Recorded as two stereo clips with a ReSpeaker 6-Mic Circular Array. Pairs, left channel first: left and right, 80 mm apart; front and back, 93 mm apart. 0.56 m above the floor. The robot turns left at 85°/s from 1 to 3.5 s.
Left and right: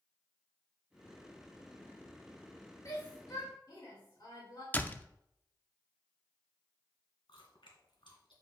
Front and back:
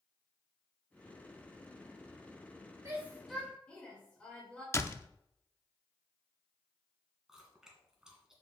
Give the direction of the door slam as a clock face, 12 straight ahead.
11 o'clock.